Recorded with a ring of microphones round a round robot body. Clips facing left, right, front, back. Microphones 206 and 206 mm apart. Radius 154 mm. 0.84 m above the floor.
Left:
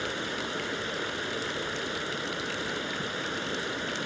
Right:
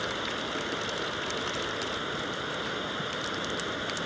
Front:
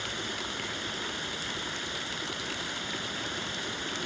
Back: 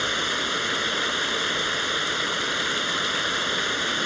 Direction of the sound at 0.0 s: 165° left.